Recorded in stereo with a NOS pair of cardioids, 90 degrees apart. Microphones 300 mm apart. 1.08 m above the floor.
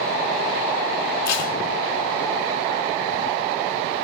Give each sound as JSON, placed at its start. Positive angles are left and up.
{"t": 1.2, "sound": "tape being pulled", "azimuth_deg": 55, "distance_m": 2.5}